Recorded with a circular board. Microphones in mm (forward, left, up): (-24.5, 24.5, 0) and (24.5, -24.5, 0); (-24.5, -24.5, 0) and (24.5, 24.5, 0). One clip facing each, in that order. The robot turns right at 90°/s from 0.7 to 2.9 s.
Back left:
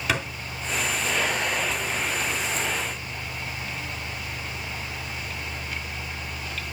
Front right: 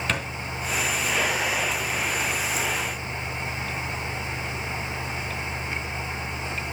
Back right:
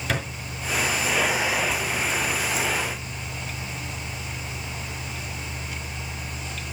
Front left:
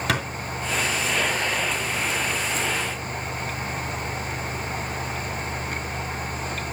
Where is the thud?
55° left, 3 m.